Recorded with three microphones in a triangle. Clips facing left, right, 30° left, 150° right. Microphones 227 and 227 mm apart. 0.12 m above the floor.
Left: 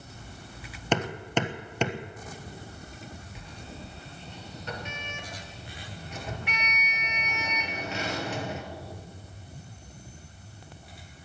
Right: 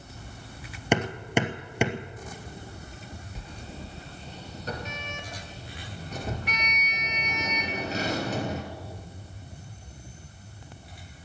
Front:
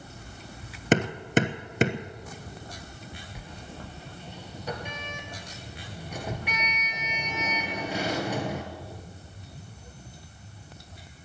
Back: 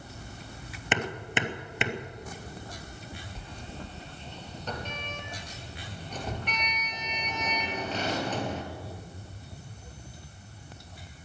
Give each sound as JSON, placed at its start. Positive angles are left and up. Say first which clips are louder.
{"t": 0.9, "sound": "hammering", "louder": "right 2 dB, front 9 dB", "azimuth_deg": -15, "distance_m": 1.1}
{"t": 3.4, "sound": "a sliding door", "louder": "right 2 dB, even", "azimuth_deg": -50, "distance_m": 2.0}